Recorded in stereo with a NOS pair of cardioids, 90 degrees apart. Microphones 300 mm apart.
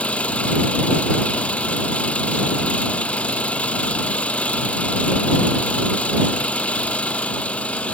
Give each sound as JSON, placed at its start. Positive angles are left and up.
{"t": 0.0, "sound": "an engine running", "azimuth_deg": 5}